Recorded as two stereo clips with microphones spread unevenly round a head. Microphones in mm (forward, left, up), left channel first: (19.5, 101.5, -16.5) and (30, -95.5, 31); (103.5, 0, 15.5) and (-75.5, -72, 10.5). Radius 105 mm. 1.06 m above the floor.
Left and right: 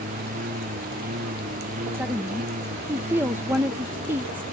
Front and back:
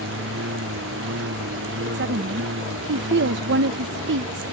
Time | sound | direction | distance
0.0 | a lawn mower | 140° right | ?
1.9 | a woman speaking | 175° right | ?